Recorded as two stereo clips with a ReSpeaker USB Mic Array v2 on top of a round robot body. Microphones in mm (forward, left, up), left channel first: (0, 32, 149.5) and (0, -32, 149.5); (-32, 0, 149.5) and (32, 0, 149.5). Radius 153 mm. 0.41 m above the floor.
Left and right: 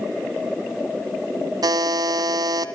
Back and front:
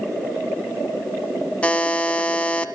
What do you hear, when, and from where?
1.6 s a buzzer: 105° right, 1.6 m